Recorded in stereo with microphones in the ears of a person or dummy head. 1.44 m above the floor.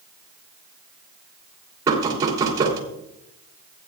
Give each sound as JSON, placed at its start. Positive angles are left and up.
{"t": 1.9, "sound": "knocking", "side_deg": -25, "distance_m": 3.0}